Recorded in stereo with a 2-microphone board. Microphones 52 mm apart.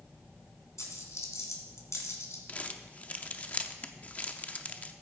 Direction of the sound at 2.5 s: 25° left (ahead or behind).